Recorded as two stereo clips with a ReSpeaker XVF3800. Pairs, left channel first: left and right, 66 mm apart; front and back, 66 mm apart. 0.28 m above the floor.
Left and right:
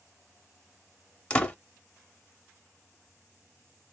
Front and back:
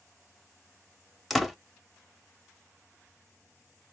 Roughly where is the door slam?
Left.